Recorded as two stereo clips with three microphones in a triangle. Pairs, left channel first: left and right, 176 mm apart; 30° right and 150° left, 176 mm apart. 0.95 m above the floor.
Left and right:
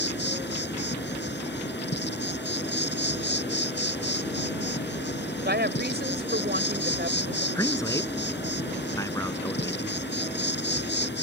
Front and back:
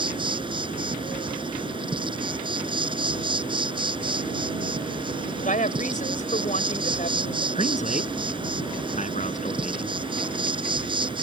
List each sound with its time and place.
0.0 s an insect: 90° left
5.4 s a woman speaking: 75° right
7.5 s a man speaking: 15° left